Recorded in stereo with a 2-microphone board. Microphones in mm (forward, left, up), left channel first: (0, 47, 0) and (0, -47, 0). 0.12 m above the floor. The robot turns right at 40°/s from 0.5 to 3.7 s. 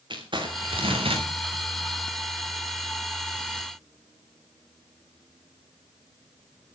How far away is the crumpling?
About 4 m.